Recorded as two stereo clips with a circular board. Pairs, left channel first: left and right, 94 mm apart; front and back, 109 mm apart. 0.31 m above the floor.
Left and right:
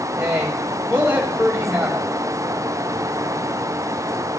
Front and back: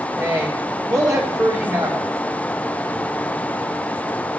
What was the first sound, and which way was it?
A woman speaking, 145° right.